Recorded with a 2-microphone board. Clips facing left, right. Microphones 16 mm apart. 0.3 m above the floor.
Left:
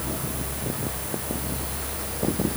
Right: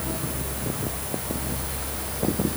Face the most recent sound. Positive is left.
No sound to turn to.